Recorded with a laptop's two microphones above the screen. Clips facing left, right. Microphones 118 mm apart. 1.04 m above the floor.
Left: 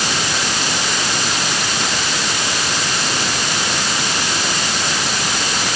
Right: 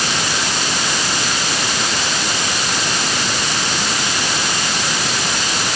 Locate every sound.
Only background noise.